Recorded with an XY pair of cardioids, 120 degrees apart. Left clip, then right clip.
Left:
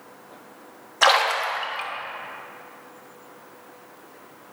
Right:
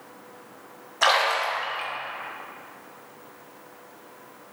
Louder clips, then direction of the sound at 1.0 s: Left 2 dB; 20° left.